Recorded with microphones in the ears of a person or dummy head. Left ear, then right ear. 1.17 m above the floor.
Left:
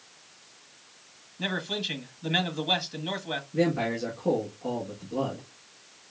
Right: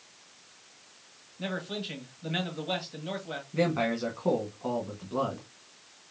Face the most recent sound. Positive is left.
turn(degrees=-60)  # may be behind; listen again after turning